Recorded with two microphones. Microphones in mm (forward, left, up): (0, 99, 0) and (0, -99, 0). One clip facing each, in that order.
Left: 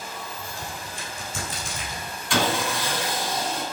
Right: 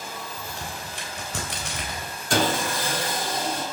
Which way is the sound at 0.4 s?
80° right.